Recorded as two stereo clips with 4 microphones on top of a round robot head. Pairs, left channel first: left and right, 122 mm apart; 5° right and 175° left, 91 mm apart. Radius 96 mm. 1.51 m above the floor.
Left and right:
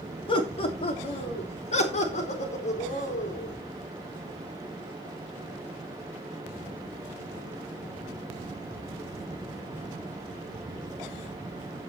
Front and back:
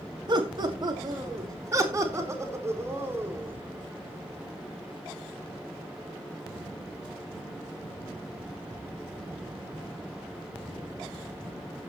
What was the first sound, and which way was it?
Laughter, 130° left.